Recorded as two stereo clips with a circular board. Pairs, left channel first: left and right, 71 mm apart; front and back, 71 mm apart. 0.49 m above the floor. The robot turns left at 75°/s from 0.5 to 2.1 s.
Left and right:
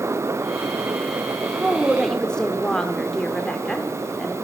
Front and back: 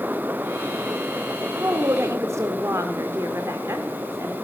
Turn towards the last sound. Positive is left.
turn(degrees=165)